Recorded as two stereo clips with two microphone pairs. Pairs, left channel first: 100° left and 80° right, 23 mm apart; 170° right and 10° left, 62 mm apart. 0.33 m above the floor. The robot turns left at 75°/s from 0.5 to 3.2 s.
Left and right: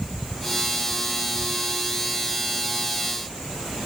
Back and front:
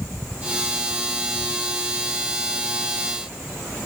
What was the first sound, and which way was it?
Only background noise.